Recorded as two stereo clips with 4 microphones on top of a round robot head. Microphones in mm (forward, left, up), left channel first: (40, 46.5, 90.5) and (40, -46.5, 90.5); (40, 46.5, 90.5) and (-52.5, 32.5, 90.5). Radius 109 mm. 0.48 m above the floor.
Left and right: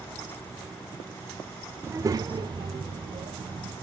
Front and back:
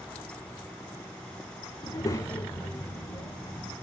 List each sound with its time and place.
1.8 s a child speaking: 30° right, 1.0 m; by 3.7 s 75° right, 2.5 m